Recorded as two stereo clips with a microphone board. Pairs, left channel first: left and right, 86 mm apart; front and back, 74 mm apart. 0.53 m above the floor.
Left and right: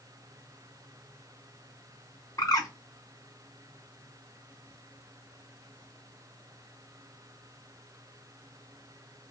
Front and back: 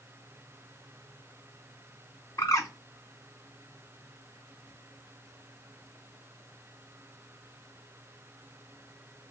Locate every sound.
2.4 s a bird: 45° left, 0.9 m